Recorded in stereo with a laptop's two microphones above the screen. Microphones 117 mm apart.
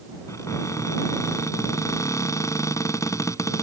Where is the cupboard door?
25° left (ahead or behind).